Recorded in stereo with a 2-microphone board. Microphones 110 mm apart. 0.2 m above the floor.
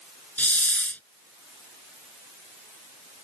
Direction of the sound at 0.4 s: 15° left (ahead or behind).